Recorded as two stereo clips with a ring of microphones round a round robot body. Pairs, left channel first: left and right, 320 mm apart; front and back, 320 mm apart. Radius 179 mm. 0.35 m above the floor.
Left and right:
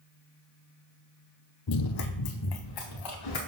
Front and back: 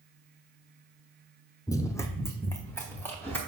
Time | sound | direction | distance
1.7 | running footsteps | 80° left | 0.6 m